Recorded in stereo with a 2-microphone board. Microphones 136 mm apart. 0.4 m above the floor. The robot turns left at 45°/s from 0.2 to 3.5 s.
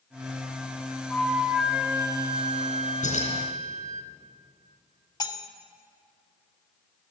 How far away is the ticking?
No ticking in this recording.